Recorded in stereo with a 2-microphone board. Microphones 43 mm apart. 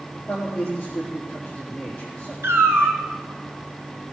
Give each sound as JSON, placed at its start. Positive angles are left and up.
{"t": 0.3, "sound": "a man speaking", "side_deg": 15, "distance_m": 4.0}
{"t": 2.4, "sound": "a cat meowing", "side_deg": -75, "distance_m": 1.8}